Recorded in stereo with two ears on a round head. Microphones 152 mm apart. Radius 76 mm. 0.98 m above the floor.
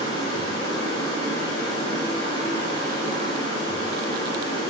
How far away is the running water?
About 1.0 m.